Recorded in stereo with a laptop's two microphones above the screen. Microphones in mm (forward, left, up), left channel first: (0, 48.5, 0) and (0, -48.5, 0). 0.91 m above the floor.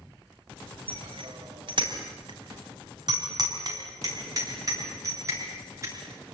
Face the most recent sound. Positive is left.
turn(degrees=-30)  # may be behind; listen again after turning